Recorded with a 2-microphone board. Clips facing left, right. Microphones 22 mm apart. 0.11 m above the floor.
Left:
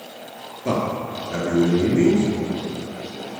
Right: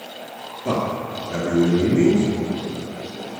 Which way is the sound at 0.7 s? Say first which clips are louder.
Even; 25° left (ahead or behind).